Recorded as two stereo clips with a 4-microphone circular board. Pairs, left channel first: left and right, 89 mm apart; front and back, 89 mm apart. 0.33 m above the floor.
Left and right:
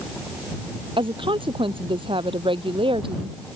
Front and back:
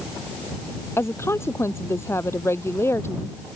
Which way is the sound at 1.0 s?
65° right.